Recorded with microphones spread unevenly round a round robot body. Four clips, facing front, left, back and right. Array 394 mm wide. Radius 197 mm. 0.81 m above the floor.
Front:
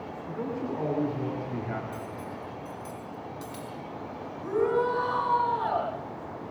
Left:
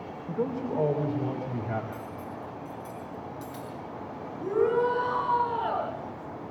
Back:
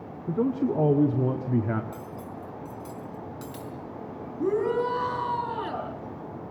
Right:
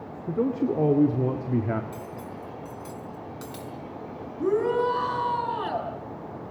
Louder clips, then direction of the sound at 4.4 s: Right 1 dB, back 1 dB; 150° right.